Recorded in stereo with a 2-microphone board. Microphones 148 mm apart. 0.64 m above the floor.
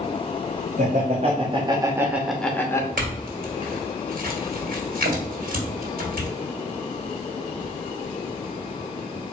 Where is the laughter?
55° right (ahead or behind), 1.2 m; by 2.9 s 20° left (ahead or behind), 0.9 m.